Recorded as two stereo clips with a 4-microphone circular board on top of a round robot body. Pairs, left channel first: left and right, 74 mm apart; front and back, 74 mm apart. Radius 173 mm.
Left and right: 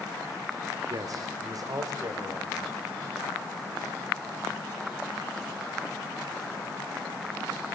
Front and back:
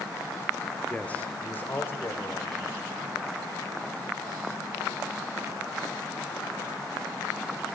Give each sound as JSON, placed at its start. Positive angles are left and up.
{"t": 0.9, "sound": "a man speaking", "azimuth_deg": -70, "distance_m": 1.9}